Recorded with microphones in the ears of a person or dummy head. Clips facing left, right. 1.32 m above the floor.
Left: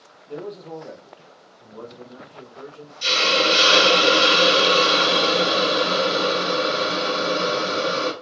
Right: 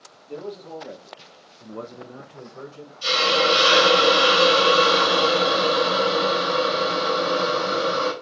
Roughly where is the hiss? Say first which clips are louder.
Right 1 dB; left.